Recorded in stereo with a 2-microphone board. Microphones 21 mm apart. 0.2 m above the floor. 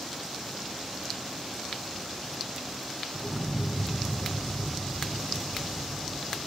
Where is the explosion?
10° left (ahead or behind), 4.5 m.